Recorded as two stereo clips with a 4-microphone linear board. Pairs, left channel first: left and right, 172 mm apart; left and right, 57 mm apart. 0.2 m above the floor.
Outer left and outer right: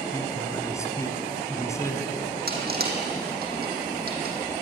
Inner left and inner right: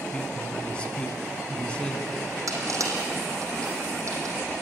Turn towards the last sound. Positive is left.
turn(degrees=-60)  # may be behind; listen again after turning